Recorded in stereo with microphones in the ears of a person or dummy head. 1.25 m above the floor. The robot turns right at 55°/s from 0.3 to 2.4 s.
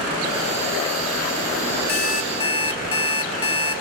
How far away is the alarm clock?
About 2.5 m.